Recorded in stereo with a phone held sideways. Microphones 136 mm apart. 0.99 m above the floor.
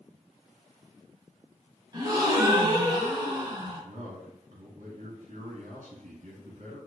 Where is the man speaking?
65° right (ahead or behind), 1.5 m.